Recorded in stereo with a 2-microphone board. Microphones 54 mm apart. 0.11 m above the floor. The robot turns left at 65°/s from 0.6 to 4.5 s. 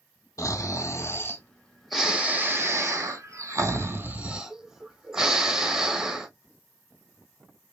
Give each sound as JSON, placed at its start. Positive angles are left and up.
{"t": 0.4, "sound": "snoring", "azimuth_deg": 85, "distance_m": 0.9}